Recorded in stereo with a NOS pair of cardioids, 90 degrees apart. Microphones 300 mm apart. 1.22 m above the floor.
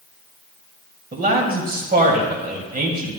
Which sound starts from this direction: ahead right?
A man speaking, at 1.1 s.